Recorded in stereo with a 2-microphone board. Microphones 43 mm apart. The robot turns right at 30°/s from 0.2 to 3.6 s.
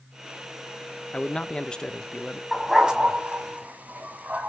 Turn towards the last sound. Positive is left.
turn(degrees=-40)  # may be behind; listen again after turning